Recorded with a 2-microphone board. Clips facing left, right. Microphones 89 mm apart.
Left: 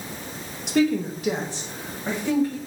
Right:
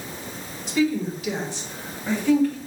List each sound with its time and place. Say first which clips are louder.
0.7 s a woman speaking: left 1 dB; 70° left (ahead or behind), 0.9 m; by 2.6 s 15° left (ahead or behind), 2 m